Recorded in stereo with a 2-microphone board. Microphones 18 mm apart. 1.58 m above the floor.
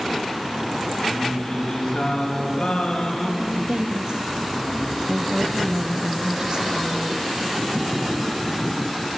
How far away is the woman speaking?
About 0.9 m.